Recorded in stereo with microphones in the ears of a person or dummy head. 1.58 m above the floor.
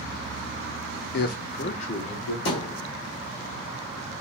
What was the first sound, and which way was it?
A man speaking, 65° left (ahead or behind).